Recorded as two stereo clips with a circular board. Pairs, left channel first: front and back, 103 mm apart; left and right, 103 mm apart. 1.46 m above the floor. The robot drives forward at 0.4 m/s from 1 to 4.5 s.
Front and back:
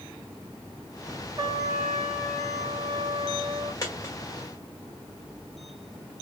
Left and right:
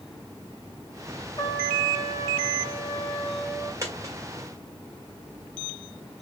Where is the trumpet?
130° left, 1.9 m; by 3.7 s 145° left, 2.5 m.